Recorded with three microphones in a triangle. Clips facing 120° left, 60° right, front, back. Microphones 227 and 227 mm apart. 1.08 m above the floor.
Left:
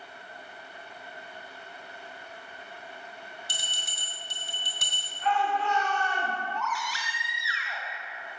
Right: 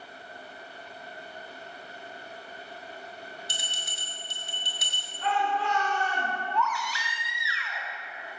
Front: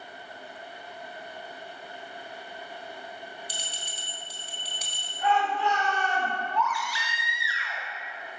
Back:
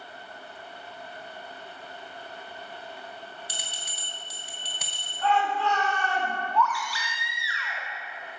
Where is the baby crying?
65° left, 2 m.